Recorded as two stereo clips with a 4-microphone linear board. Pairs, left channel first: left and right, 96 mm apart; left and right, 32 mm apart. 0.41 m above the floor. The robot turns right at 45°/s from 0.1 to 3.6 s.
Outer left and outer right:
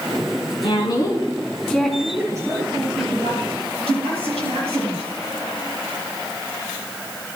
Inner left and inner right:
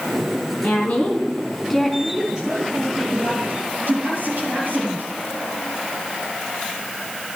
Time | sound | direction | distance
0.6 | a woman speaking | 55° left (ahead or behind) | 4 m
2.0 | a man speaking | 165° right | 8.5 m